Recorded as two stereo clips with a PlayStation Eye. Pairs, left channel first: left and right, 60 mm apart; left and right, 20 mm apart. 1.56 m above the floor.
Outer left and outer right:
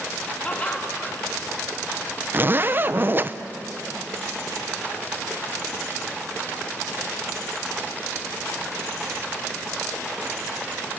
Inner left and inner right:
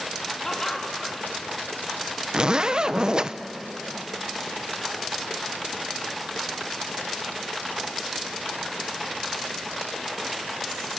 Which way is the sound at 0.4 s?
20° left (ahead or behind).